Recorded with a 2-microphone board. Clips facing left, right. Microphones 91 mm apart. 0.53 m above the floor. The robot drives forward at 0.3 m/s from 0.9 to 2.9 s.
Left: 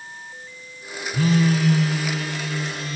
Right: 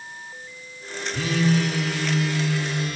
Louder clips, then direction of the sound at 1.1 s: Left 2 dB; 35° left (ahead or behind).